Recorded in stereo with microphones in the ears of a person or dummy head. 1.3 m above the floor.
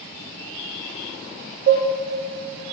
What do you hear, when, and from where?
1.7 s dishes clattering: 45° right (ahead or behind), 0.8 m